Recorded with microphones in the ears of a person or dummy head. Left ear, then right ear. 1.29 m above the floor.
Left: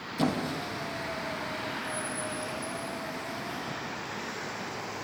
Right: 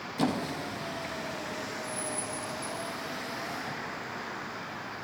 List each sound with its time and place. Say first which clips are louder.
0.2 s a squeak: left 1 dB; 5° right (ahead or behind), 0.7 m